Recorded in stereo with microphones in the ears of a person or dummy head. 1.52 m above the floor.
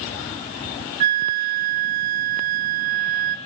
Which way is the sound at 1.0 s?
50° right (ahead or behind).